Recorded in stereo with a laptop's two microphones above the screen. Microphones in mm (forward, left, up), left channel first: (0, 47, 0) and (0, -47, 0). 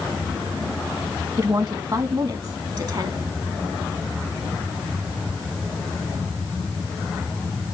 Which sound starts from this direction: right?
A woman speaking, at 1.4 s.